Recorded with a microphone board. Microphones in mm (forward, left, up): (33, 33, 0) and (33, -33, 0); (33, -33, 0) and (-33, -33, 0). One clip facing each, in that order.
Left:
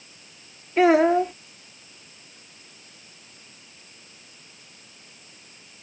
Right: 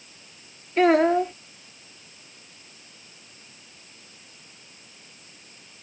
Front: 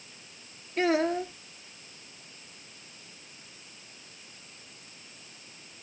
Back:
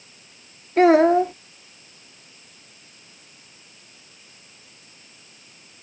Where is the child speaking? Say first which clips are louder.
Left 1 dB, back 12 dB; 170° left.